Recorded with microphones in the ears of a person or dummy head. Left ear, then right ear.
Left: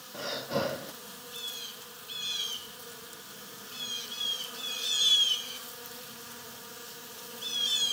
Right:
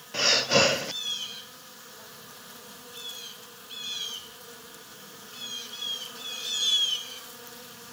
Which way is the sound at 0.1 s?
70° right (ahead or behind).